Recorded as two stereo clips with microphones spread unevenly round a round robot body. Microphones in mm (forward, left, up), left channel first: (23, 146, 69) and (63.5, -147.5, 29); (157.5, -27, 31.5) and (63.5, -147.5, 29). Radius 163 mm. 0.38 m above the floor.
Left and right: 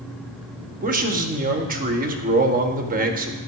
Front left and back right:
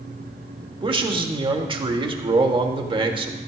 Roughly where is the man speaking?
Right.